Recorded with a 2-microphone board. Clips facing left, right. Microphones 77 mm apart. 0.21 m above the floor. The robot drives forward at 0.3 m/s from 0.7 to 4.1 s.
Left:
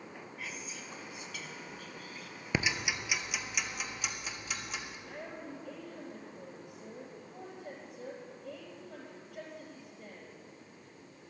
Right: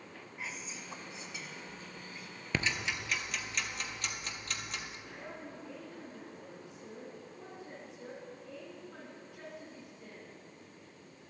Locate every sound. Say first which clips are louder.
0.4 s whispering: right 2 dB; 25° right (ahead or behind), 1.8 m; by 2.4 s 20° right (ahead or behind), 2 m
2.5 s ticking: left 1 dB; 15° left (ahead or behind), 0.6 m; by 5.0 s 10° left (ahead or behind), 1.1 m
5.1 s a woman speaking: left 2 dB; 55° left (ahead or behind), 5 m